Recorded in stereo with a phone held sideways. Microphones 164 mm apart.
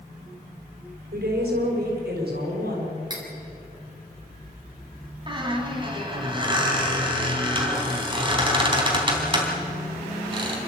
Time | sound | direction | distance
1.1 | a woman speaking | 85° right | 6 m
3.1 | cutlery clinking | 25° right (ahead or behind) | 4 m
5.3 | a squeak | 30° right (ahead or behind) | 3.5 m